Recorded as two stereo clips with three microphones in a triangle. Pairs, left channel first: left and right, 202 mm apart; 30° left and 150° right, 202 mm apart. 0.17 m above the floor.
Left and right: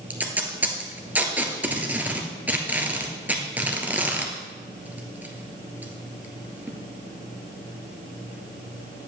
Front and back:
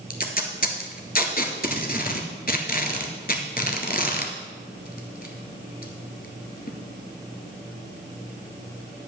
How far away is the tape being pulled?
About 1.1 m.